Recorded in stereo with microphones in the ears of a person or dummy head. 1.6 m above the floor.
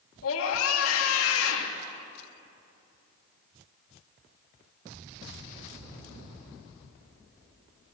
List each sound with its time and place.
0.2 s a scream: 80° left, 3 m